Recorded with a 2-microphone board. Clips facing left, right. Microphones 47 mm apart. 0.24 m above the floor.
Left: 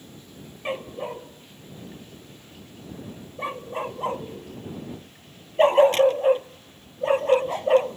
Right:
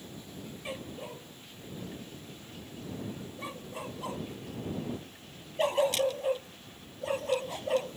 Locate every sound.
0.7 s a dog barking: 40° left (ahead or behind)